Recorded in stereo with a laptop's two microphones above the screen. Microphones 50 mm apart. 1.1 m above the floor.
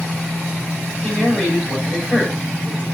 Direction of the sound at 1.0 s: 25° left (ahead or behind).